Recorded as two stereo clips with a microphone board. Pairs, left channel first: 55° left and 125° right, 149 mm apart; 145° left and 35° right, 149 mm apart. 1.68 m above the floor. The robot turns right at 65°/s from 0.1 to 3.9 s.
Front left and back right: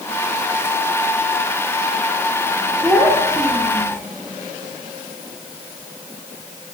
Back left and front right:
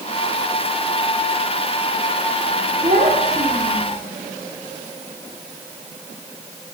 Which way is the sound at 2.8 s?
40° right.